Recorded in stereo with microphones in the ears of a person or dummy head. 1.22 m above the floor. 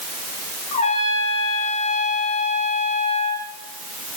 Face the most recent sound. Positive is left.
turn(degrees=35)  # may be behind; listen again after turning